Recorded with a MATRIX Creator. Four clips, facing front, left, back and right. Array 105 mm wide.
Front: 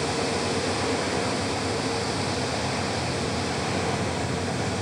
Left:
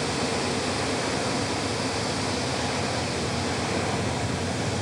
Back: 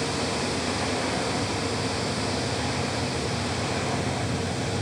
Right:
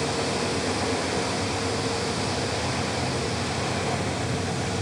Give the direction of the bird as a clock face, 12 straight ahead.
No bird in this recording.